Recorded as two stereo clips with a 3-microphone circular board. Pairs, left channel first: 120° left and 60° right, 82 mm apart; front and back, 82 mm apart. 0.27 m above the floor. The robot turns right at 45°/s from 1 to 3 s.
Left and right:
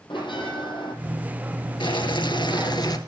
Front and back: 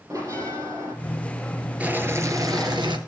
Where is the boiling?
105° left, 2.5 m; by 3.0 s 160° left, 2.5 m.